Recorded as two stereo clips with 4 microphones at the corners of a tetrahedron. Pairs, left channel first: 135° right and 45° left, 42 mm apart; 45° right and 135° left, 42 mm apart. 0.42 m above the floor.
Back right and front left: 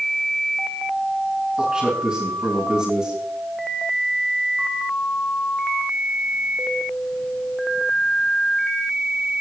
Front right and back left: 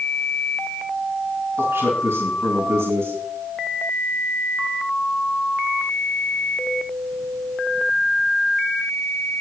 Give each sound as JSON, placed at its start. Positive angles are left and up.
{"t": 1.6, "sound": "a man speaking", "azimuth_deg": 120, "distance_m": 3.5}